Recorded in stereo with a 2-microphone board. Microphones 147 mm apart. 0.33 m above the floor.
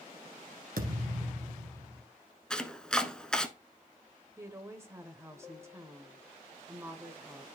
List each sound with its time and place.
0.8 s a thud: 85° right, 1.4 m
2.5 s chopping: 5° left (ahead or behind), 0.7 m
4.4 s a woman speaking: 20° right (ahead or behind), 0.9 m